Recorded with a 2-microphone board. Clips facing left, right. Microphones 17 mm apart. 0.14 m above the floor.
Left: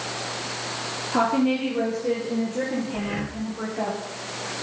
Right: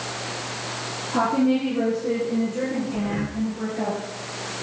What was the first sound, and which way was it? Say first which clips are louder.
A woman speaking: right 1 dB; 50° left (ahead or behind).